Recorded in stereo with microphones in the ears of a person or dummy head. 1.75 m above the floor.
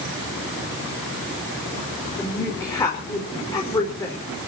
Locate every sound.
2.2 s a woman speaking: 20° left (ahead or behind), 5 m